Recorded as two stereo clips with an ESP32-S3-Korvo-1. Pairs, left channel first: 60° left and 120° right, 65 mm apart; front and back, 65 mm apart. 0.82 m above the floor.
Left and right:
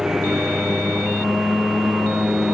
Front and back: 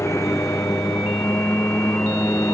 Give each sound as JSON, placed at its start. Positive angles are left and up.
{"t": 0.0, "sound": "a lawn mower", "azimuth_deg": -40}